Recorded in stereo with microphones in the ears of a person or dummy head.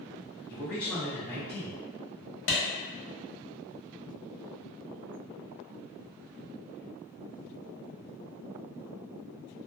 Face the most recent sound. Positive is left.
turn(degrees=80)